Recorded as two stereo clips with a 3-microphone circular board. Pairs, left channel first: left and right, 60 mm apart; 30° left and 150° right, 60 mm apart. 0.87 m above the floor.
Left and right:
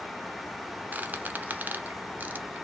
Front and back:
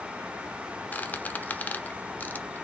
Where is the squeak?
30° right, 0.7 m.